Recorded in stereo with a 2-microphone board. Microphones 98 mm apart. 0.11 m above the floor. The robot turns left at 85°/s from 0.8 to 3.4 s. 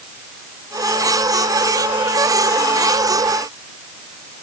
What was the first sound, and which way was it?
Only background noise.